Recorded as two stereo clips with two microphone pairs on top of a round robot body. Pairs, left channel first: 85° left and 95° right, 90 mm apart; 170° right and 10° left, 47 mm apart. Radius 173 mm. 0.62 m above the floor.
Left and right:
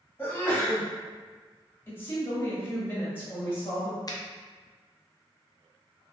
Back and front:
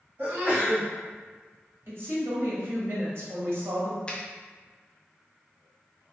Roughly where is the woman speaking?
Ahead.